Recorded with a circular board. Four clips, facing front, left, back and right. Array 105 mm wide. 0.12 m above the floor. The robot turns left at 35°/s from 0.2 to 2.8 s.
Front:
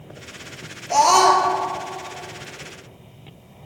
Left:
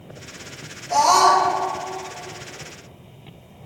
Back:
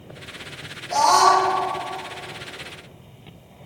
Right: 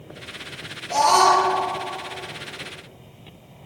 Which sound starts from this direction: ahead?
A scream, at 0.9 s.